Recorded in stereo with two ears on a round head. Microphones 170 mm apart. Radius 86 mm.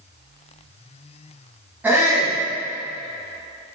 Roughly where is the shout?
Centre.